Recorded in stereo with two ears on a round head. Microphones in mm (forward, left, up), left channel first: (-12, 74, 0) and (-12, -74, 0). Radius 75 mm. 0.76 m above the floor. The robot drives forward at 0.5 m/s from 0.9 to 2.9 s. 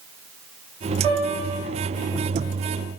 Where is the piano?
30° right (ahead or behind), 1.6 m; by 1.7 s 35° right (ahead or behind), 1.3 m.